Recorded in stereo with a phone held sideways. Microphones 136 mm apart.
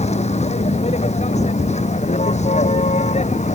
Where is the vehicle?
55° left (ahead or behind); by 3.6 s 60° left (ahead or behind).